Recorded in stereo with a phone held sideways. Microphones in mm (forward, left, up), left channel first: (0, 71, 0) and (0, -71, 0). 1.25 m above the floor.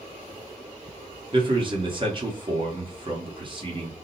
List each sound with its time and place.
1.3 s a man speaking: 35° right (ahead or behind), 1.4 m